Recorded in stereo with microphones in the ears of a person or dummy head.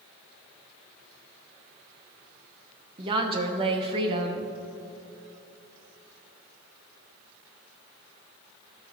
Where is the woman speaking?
30° right (ahead or behind), 0.7 m.